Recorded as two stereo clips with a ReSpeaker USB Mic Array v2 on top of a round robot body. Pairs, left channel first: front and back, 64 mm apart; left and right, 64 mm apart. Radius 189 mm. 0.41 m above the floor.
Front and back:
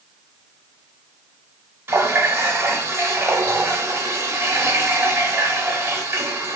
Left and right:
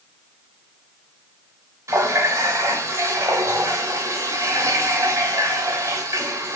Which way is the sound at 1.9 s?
130° right.